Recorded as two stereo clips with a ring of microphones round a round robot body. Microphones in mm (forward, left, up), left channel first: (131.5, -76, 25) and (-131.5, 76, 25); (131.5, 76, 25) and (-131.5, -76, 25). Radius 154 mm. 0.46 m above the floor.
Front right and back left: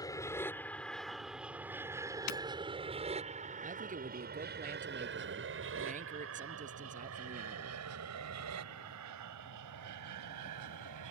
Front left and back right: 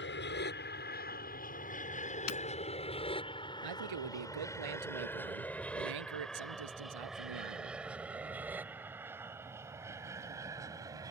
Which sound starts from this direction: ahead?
Breaking glass, at 2.3 s.